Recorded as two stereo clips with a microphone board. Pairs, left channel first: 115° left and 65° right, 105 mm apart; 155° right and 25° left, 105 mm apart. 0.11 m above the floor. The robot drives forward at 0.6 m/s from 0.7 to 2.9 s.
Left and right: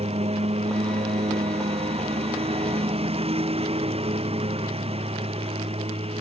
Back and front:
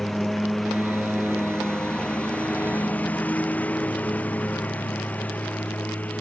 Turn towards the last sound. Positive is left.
turn(degrees=-80)